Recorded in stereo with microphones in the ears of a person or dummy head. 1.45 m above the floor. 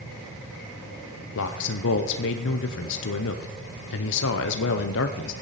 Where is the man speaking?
70° left (ahead or behind), 0.7 m.